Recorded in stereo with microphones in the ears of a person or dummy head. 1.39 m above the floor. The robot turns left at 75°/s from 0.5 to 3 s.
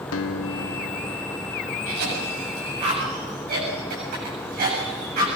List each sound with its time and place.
0.1 s a guitar: 80° left, 0.9 m; by 1.8 s 15° right, 0.9 m
1.9 s a cough: 50° right (ahead or behind), 8 m; by 5.3 s 45° right (ahead or behind), 8 m